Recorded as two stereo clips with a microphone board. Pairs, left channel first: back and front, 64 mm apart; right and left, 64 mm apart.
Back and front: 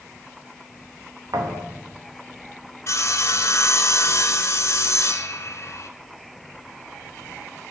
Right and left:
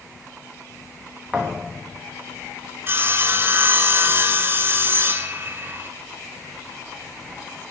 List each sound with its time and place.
1.3 s a thud: 15° left, 2 m
2.9 s sawing: 140° left, 0.7 m